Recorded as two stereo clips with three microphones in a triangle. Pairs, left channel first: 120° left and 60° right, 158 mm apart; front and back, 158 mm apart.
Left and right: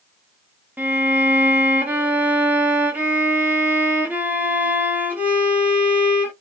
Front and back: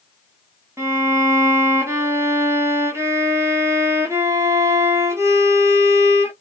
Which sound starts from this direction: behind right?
A violin, at 0.8 s.